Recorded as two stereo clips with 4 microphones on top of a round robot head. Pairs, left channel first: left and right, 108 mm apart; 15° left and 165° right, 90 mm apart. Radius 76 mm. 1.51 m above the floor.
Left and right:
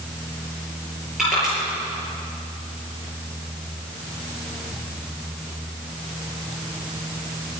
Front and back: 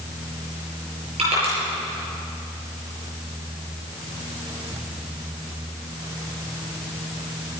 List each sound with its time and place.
1.2 s crushing: 175° right, 7.5 m